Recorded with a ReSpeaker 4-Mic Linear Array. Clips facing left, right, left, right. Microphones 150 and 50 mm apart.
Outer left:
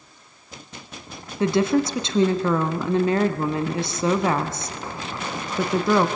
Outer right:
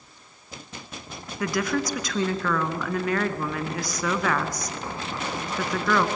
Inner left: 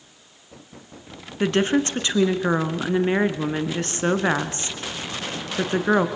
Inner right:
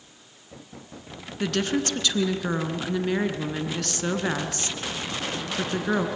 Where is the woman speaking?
25° left (ahead or behind), 1.8 m.